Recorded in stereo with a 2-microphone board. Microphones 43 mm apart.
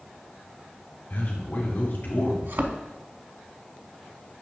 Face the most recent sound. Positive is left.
turn(degrees=-60)  # may be behind; listen again after turning